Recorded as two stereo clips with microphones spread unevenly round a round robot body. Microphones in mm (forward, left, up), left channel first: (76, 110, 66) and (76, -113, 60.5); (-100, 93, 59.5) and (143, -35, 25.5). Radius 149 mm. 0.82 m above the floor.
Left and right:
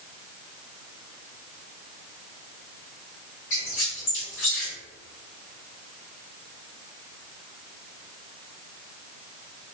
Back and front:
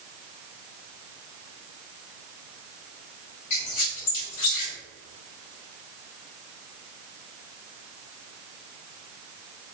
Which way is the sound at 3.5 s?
140° left.